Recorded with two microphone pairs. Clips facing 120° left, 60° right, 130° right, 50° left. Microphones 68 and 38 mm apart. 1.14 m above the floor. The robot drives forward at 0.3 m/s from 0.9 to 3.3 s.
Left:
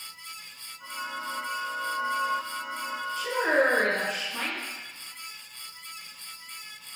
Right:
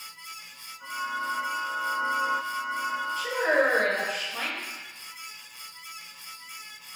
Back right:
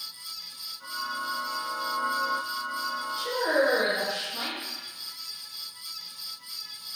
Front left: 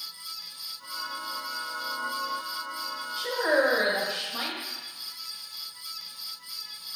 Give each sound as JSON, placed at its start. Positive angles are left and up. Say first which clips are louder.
{"t": 3.2, "sound": "a woman speaking", "louder": "left 1 dB, front left 1 dB", "azimuth_deg": 30, "distance_m": 1.2}